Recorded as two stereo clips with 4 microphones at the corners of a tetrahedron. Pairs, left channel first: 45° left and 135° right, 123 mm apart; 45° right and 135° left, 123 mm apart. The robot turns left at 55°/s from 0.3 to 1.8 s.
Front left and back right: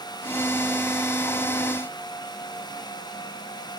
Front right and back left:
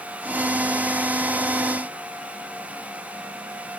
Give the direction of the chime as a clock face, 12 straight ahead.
I don't hear a chime.